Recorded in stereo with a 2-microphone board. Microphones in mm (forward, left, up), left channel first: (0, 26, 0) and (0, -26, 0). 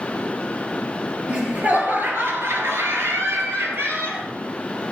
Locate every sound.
1.3 s laughter: 25° right (ahead or behind), 3 m; by 4.2 s 50° right (ahead or behind), 3.5 m